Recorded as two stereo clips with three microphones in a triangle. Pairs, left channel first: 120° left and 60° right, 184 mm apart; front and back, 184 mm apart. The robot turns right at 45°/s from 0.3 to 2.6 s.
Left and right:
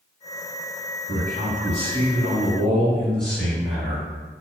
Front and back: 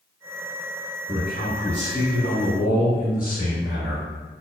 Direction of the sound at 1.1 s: 35° right.